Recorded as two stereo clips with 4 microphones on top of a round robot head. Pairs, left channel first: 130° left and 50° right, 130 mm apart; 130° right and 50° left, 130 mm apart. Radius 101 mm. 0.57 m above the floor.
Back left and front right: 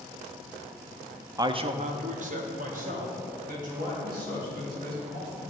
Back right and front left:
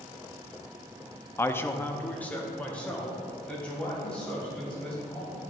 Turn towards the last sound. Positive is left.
turn(degrees=-45)